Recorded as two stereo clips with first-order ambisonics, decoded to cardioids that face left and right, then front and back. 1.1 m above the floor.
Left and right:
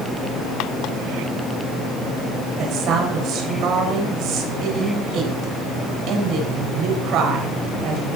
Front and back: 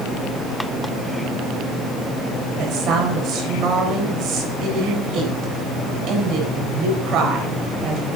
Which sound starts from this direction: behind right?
A woman speaking, at 2.6 s.